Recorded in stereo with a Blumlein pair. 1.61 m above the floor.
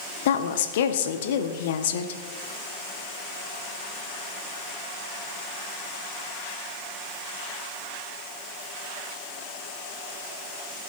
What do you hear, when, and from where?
0.2 s a woman speaking: 55° left, 1.2 m